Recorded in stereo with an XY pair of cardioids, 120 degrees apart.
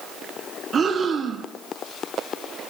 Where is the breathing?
35° right, 1.0 m.